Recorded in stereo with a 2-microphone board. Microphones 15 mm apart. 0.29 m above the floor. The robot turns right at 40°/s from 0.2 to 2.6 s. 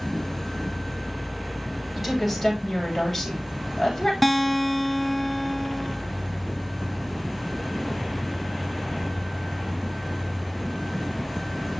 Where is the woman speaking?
15° right (ahead or behind), 8.5 m; by 4.1 s 15° left (ahead or behind), 8.5 m.